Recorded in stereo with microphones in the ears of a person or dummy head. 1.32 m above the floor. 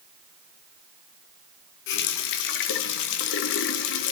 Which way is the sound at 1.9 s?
65° left (ahead or behind).